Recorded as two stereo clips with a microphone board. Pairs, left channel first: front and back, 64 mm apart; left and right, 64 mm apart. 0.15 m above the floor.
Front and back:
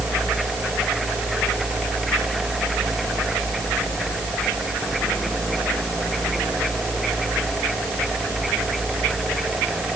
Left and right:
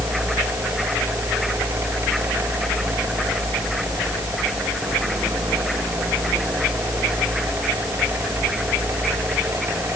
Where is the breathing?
I don't hear breathing.